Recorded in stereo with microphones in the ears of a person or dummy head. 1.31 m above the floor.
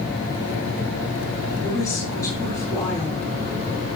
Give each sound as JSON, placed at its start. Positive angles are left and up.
{"t": 1.6, "sound": "a woman speaking", "side_deg": 20, "distance_m": 6.5}